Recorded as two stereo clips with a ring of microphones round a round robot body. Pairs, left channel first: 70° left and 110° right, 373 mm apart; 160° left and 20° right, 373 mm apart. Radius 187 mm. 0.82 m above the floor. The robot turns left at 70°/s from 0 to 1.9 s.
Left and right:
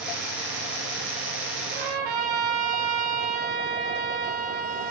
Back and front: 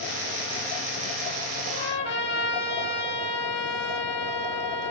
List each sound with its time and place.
1.7 s a trumpet: 130° right, 4.5 m; by 4.9 s 140° right, 4.5 m